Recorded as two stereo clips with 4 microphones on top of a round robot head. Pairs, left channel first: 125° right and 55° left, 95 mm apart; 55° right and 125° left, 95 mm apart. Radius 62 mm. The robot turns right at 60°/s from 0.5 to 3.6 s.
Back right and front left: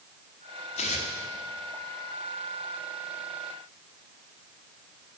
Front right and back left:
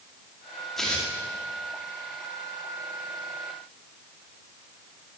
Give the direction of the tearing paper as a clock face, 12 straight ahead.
5 o'clock.